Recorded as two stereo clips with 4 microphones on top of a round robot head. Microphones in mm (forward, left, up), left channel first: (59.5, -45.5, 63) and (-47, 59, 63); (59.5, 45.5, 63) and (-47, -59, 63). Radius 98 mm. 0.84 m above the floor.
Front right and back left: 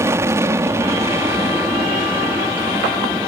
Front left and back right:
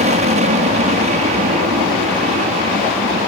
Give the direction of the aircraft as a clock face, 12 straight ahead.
5 o'clock.